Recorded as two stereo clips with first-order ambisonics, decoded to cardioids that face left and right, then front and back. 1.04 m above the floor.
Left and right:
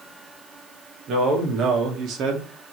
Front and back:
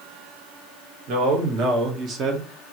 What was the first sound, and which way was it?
A man speaking, 145° right.